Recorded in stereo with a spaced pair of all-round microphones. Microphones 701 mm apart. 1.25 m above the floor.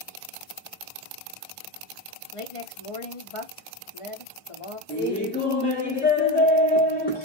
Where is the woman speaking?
50° left (ahead or behind), 0.7 m.